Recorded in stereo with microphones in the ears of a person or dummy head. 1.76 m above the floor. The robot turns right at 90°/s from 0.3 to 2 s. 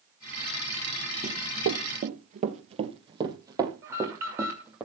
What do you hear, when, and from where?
1.2 s running footsteps: 30° right (ahead or behind), 3 m; by 4.8 s 5° right (ahead or behind), 4.5 m
3.8 s an alarm: 15° right (ahead or behind), 6.5 m